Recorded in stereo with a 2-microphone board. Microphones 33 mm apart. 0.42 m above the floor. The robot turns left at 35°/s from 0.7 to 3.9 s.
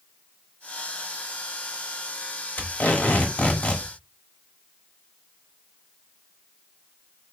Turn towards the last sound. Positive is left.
turn(degrees=30)